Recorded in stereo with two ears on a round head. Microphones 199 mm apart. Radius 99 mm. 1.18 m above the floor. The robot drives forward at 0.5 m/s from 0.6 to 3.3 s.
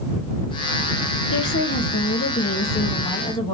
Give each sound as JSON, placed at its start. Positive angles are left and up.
{"t": 1.3, "sound": "a woman speaking", "side_deg": 60, "distance_m": 0.8}